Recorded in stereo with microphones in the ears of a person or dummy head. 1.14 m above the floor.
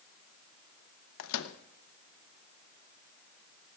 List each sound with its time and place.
1.2 s a microwave: 85° left, 0.8 m